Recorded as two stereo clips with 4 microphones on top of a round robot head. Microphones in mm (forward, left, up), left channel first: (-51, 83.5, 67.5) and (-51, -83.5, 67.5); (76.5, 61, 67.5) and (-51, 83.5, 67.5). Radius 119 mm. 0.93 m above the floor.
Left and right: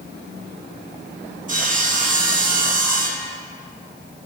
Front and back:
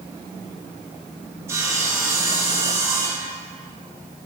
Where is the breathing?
No breathing in this recording.